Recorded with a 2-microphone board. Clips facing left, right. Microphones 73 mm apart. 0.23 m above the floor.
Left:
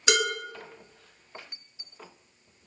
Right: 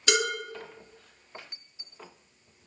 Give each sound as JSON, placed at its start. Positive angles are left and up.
{"t": 0.1, "sound": "dishes clattering", "side_deg": 20, "distance_m": 1.0}